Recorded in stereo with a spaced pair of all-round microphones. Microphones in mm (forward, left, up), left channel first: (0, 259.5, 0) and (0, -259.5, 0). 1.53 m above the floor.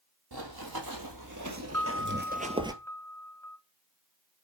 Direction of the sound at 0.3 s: 45° right (ahead or behind).